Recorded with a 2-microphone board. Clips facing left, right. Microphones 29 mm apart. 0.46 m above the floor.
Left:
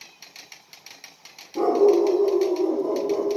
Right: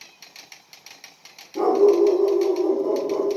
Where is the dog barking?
5° right (ahead or behind), 2.5 m; by 3.3 s 20° right (ahead or behind), 3 m.